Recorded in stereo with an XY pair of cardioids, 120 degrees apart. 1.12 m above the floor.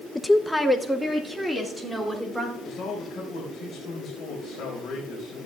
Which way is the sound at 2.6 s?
45° left.